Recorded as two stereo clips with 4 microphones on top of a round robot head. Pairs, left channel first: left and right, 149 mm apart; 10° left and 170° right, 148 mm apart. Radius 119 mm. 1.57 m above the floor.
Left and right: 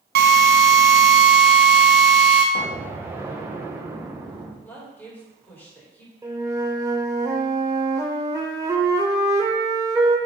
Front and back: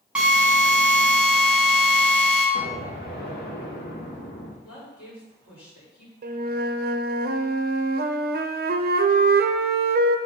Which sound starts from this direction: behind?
A flute, at 6.2 s.